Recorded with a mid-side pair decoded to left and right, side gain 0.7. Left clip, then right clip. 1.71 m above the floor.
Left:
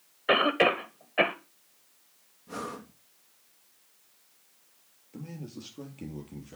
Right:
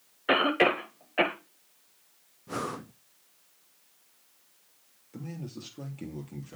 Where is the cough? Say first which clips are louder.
Left 1 dB; straight ahead, 1.6 m.